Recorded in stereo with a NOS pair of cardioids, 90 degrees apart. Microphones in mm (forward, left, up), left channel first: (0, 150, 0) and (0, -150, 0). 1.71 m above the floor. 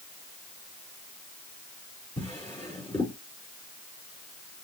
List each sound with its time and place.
2.2 s a drawer: 10° left, 3 m